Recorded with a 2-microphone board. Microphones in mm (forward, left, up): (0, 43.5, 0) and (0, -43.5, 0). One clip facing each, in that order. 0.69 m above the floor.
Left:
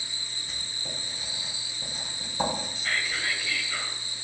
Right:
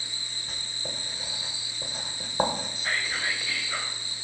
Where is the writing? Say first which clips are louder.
Right 3 dB; 45° right (ahead or behind), 1.8 m.